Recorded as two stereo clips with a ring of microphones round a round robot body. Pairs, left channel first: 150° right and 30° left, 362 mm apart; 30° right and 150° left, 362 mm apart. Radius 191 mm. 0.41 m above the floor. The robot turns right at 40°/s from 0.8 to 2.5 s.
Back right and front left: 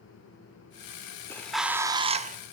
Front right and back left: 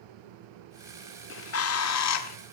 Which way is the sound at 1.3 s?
70° right.